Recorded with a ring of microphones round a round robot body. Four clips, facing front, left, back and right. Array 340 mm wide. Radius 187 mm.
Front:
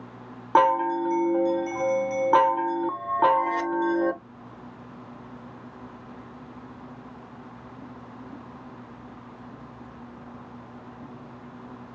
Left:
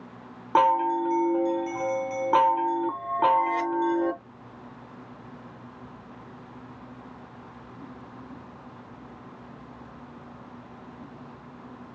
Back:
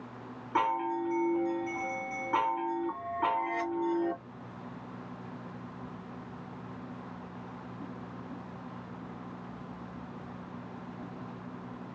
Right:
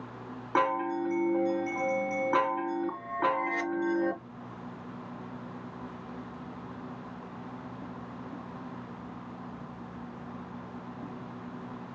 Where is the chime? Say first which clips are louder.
Left 7 dB, front 10 dB; 25° left, 0.7 m.